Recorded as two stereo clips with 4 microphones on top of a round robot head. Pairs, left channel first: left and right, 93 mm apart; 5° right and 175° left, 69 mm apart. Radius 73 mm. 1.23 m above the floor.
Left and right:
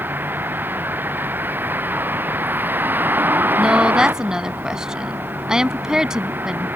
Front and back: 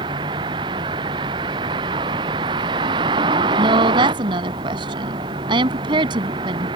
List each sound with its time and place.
0.0 s a vehicle: 160° right
3.6 s a woman speaking: 175° right